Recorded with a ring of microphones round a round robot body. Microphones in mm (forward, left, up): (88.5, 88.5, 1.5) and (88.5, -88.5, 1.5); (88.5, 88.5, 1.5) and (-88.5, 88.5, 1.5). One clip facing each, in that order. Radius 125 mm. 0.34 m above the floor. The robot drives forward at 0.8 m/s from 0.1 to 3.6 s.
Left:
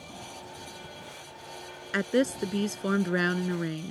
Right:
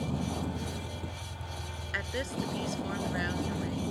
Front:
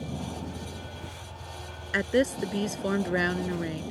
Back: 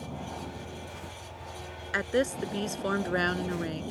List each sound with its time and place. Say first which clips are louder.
0.0 s a vehicle: right 11 dB, front 3 dB; 70° right; by 3.9 s 90° right
1.9 s a woman speaking: left 10 dB, front 3 dB; 65° left; by 3.9 s 80° left